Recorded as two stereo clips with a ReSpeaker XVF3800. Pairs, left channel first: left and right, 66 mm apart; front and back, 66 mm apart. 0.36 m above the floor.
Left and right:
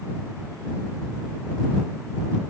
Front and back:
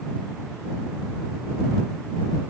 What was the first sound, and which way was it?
Only background noise.